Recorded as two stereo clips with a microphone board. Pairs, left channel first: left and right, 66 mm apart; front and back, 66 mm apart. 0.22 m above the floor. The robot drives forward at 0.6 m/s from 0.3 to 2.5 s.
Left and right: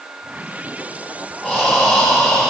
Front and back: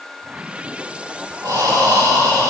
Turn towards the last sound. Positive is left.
turn(degrees=-170)